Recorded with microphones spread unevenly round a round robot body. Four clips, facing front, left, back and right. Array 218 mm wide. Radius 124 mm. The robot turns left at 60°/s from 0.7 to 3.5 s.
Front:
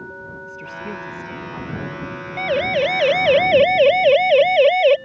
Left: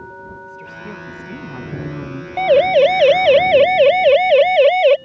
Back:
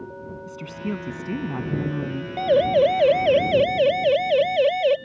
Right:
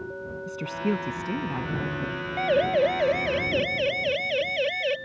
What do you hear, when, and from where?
0.5 s a woman speaking: 135° right; by 2.3 s 130° left
2.4 s a siren: 105° left; by 5.0 s 35° left